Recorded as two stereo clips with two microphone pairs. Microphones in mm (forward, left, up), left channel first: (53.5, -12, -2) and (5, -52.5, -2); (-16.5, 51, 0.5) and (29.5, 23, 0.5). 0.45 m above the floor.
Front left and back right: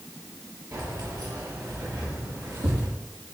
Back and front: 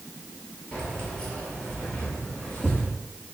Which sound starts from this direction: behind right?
Keys jangling, at 0.7 s.